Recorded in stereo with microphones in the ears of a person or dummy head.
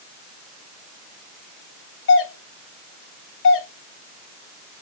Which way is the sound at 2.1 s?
60° left (ahead or behind).